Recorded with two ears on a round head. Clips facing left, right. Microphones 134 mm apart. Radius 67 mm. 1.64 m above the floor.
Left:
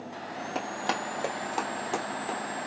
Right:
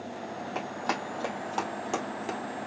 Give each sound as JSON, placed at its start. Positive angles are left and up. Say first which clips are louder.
{"t": 0.6, "sound": "running footsteps", "louder": "left 2 dB", "side_deg": 40, "distance_m": 2.0}